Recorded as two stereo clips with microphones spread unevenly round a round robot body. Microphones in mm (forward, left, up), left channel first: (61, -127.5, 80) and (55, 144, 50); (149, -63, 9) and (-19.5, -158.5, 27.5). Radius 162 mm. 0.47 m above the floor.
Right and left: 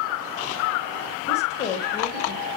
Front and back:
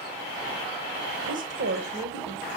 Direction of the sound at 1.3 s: 160° right.